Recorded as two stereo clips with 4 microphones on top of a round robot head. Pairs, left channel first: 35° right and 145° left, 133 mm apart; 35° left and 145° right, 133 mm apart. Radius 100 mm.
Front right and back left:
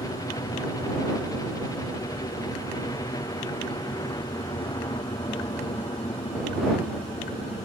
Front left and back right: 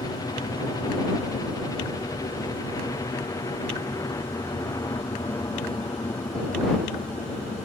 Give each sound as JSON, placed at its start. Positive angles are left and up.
{"t": 0.0, "sound": "a helicopter", "azimuth_deg": 5}